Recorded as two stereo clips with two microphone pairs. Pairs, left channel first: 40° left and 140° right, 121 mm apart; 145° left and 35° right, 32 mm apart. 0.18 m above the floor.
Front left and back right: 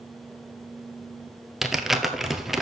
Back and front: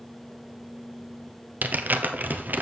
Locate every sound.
1.6 s crumpling: 50° right, 0.9 m